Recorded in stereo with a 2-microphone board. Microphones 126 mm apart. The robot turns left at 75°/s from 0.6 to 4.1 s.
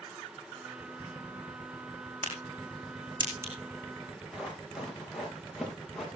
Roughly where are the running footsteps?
Centre.